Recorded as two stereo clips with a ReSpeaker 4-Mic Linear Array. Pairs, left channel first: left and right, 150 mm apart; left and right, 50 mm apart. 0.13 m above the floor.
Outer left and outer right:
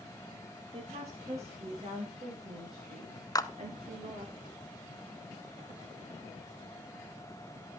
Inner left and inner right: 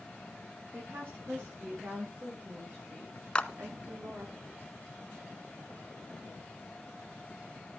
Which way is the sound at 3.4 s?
25° left (ahead or behind).